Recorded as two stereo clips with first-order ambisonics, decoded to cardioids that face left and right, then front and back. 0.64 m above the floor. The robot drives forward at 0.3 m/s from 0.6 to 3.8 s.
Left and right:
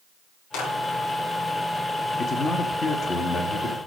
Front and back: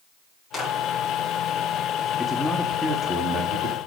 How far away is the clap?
About 7 m.